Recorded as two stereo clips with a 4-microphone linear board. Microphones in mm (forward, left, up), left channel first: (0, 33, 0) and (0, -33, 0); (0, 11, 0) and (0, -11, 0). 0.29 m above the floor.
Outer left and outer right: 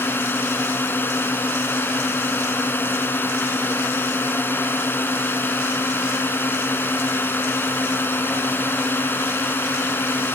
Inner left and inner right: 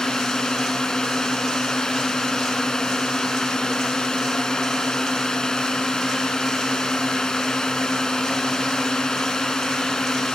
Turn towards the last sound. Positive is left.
turn(degrees=30)  # may be behind; listen again after turning